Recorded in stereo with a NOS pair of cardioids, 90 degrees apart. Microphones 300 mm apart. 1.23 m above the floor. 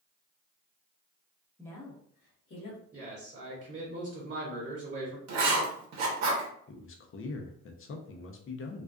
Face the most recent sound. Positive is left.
turn(degrees=45)